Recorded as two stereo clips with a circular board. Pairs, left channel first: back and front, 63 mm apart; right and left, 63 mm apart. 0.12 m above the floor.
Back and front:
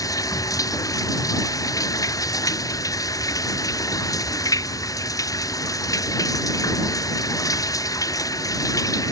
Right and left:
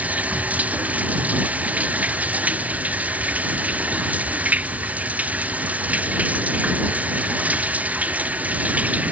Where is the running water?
155° left.